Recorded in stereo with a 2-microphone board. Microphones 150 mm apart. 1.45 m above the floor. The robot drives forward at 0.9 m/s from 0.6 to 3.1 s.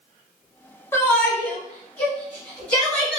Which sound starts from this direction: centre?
A shout, at 0.9 s.